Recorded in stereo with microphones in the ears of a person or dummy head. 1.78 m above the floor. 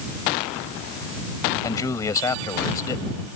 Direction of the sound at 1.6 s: 15° left (ahead or behind).